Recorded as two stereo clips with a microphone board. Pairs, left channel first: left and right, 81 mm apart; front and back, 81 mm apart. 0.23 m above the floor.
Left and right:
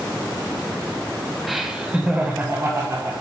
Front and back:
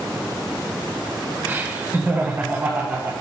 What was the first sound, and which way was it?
Laughter, 175° right.